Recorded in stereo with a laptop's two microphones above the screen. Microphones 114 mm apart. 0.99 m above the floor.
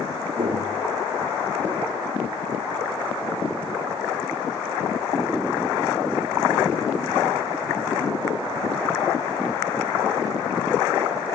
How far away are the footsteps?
About 1.7 m.